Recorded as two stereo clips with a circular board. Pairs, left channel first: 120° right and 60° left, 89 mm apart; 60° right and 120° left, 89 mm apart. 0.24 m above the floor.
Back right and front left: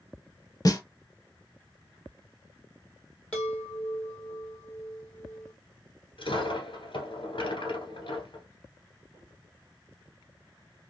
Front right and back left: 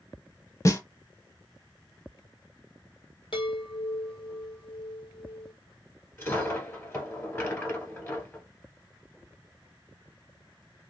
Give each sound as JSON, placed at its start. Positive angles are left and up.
{"t": 0.7, "sound": "a snare drum", "azimuth_deg": -100, "distance_m": 0.7}
{"t": 3.3, "sound": "a chime", "azimuth_deg": -45, "distance_m": 1.9}
{"t": 6.2, "sound": "a dropped coin", "azimuth_deg": -125, "distance_m": 1.4}